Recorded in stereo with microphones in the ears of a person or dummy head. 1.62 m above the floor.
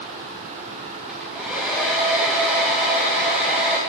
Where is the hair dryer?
Centre (ahead or behind), 0.8 m.